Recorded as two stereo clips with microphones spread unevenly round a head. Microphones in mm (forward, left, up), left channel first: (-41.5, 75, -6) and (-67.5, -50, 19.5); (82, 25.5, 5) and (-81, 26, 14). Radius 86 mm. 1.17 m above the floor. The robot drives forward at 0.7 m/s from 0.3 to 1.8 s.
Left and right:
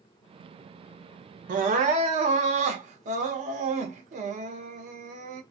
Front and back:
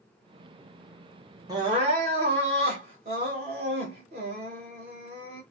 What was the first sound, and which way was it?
Crying, 110° right.